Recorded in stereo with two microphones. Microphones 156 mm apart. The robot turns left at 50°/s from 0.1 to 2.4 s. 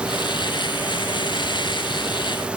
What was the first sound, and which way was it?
Only background noise.